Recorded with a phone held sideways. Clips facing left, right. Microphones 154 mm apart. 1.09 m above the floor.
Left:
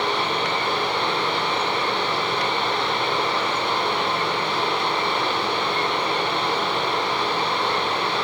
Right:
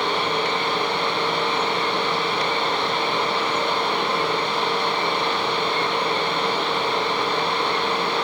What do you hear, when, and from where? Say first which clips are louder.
0.0 s a fan: right 1 dB; 60° left (ahead or behind), 1.2 m